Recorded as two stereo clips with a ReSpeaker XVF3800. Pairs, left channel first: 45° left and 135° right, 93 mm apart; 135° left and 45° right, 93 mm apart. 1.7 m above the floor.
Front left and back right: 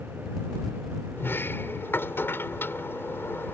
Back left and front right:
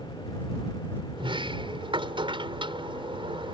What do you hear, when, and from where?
1.2 s a sliding door: 20° right